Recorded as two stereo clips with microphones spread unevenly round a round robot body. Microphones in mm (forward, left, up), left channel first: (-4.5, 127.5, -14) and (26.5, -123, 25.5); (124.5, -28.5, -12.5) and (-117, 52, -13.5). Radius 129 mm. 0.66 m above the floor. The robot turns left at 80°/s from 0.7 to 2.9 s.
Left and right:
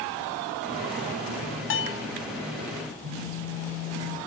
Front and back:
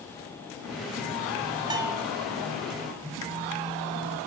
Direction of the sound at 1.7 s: 90° left.